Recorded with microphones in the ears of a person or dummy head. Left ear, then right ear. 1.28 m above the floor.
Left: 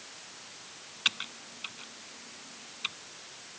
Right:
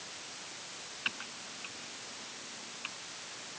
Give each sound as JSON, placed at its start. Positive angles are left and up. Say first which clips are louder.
{"t": 1.1, "sound": "typing on a keyboard", "louder": "left 8 dB", "side_deg": 80}